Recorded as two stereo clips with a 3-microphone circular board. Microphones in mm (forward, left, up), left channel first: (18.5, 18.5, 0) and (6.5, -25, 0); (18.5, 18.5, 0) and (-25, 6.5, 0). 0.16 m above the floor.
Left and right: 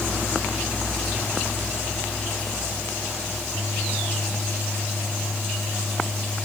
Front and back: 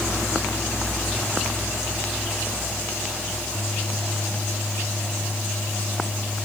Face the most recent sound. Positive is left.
No sound to turn to.